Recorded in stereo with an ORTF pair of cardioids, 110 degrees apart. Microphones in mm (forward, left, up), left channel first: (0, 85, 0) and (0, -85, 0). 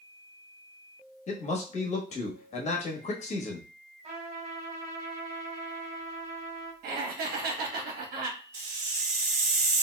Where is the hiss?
40° right, 1.6 m.